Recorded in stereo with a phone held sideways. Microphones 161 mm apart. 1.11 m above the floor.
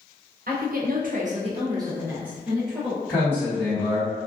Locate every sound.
0.5 s a woman speaking: 65° right (ahead or behind), 0.7 m; by 3.0 s 5° left (ahead or behind), 1.2 m
3.1 s a man speaking: 5° left (ahead or behind), 1.4 m